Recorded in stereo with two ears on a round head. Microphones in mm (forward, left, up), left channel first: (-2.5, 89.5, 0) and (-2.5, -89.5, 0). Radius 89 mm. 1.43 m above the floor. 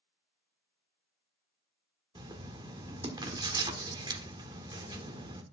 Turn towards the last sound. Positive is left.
turn(degrees=-25)  # may be behind; listen again after turning